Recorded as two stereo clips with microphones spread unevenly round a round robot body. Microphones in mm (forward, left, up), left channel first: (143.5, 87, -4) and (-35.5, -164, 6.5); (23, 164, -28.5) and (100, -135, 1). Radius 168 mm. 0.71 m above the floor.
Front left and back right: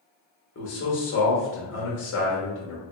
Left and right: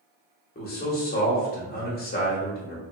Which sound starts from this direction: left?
A man speaking, at 0.6 s.